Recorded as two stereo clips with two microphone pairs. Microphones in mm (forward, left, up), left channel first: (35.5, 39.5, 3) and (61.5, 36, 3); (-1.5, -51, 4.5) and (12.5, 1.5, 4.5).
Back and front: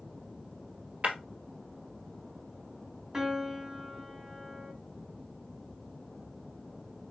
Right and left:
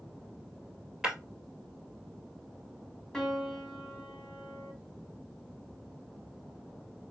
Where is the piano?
35° right, 1.1 m.